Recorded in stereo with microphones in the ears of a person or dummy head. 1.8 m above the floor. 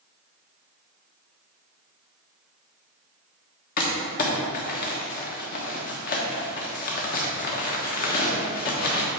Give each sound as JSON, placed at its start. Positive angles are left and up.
{"t": 3.8, "sound": "crumpling", "side_deg": 50, "distance_m": 1.3}